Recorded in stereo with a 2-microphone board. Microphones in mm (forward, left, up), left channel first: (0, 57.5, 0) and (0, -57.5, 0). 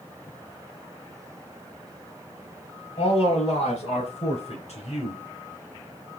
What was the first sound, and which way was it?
A man speaking, 65° left (ahead or behind).